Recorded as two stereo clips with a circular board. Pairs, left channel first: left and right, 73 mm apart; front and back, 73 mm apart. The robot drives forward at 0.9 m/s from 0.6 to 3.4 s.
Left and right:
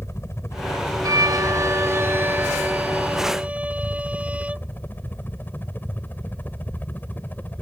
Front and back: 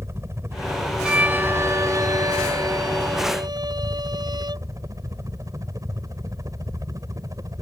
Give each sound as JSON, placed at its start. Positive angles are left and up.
{"t": 0.0, "sound": "a helicopter", "azimuth_deg": 135}
{"t": 1.0, "sound": "a violin", "azimuth_deg": -105}